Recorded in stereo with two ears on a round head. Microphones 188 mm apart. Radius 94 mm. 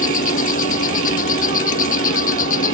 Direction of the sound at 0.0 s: 40° left (ahead or behind).